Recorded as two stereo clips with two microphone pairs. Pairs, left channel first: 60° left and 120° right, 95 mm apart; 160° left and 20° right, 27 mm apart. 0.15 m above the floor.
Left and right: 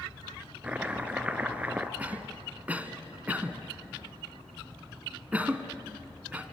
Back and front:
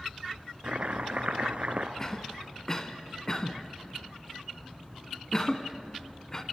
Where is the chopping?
45° right, 1.2 m.